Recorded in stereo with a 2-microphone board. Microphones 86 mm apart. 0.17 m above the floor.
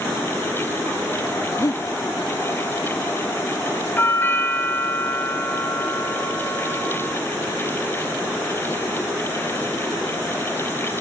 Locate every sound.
1.6 s breathing: 40° left (ahead or behind), 1.4 m
4.0 s a doorbell: 25° left (ahead or behind), 3 m